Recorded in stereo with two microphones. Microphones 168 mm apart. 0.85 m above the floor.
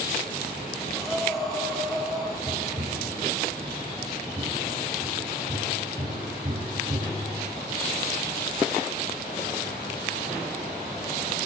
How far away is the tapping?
About 4.5 m.